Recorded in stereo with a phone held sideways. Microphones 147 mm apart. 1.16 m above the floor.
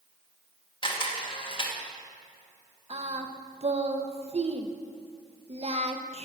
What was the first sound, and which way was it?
A camera shutter, 35° left (ahead or behind).